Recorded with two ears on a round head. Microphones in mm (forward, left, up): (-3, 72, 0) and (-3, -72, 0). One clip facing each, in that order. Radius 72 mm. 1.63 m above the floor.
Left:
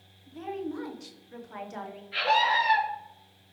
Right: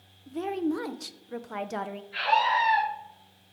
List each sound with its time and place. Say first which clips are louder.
0.3 s a woman speaking: right 6 dB; 65° right (ahead or behind), 0.8 m
2.1 s a scream: even; 75° left (ahead or behind), 3 m